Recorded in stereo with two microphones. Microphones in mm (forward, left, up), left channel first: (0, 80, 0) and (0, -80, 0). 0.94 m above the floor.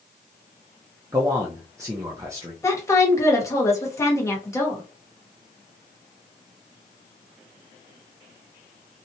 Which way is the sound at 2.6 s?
15° left (ahead or behind).